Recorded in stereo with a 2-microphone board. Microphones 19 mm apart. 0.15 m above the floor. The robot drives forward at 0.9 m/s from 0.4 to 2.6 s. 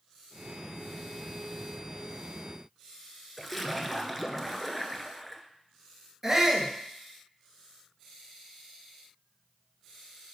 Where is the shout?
10° right (ahead or behind), 2.0 m.